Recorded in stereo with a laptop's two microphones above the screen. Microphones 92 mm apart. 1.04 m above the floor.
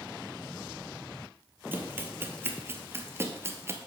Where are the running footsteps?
20° right (ahead or behind), 1.5 m; by 3.8 s 25° right (ahead or behind), 1.1 m.